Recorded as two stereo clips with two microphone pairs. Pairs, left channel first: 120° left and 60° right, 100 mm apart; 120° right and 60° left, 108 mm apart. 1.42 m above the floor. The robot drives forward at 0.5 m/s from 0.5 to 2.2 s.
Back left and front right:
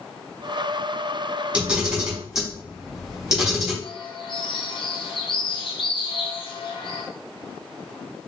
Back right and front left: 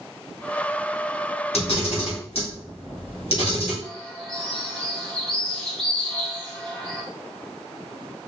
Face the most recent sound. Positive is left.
turn(degrees=155)